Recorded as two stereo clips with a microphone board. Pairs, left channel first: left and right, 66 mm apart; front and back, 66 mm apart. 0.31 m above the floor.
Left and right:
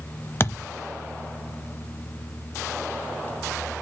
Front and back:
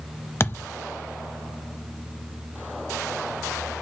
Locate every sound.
0.4 s a thud: 45° left, 0.8 m